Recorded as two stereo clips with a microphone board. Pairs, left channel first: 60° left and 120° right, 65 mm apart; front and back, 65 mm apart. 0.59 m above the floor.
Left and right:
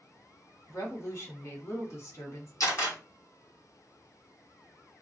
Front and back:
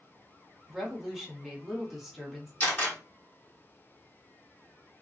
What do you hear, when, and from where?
0.7 s a woman speaking: 95° left, 1.1 m
2.6 s a camera shutter: 65° left, 1.5 m